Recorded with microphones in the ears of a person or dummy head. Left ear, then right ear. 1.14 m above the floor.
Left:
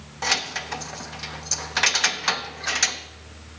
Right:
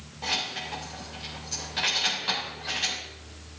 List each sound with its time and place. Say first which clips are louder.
0.2 s keys jangling: left 5 dB; 50° left (ahead or behind), 0.7 m